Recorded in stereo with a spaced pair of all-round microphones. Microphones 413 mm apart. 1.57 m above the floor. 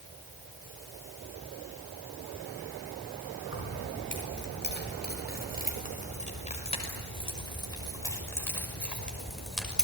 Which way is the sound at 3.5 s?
30° left (ahead or behind).